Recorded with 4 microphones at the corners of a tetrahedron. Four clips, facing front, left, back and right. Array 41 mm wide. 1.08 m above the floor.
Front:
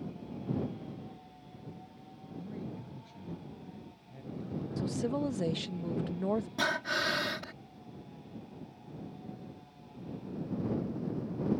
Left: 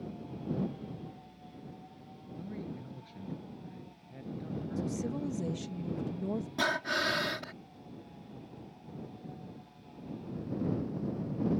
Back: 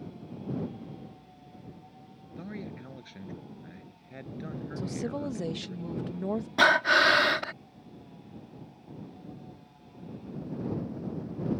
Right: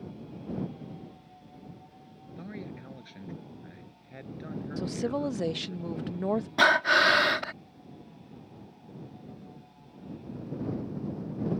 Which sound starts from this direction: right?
A woman speaking, at 4.8 s.